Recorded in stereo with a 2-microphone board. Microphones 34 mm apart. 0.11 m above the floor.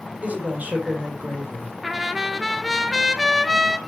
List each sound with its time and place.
0.2 s a woman speaking: 45° right (ahead or behind), 3.5 m
1.8 s a trumpet: 5° right (ahead or behind), 0.8 m